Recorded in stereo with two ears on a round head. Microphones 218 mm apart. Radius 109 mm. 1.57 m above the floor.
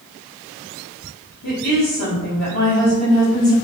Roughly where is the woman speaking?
Left.